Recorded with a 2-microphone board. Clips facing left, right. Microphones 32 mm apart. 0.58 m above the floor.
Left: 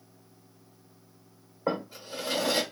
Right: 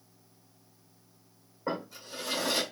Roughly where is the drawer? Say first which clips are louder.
Left 4 dB; left.